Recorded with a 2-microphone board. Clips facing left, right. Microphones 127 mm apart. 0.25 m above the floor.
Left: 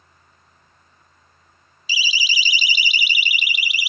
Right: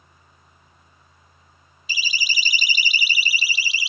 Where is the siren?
50° right (ahead or behind); by 3.9 s 30° right (ahead or behind).